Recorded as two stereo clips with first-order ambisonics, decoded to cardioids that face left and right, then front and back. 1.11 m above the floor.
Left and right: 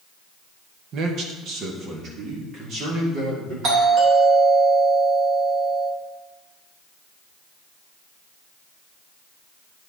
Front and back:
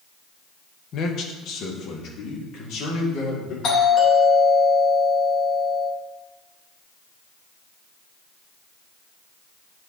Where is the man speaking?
50° right, 1.1 m; by 3.5 s 35° right, 3.5 m.